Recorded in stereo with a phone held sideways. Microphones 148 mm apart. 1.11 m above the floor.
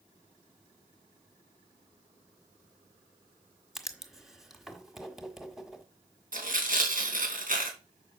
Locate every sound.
3.8 s writing: centre (ahead or behind), 1.5 m
6.3 s tearing paper: 70° right (ahead or behind), 3 m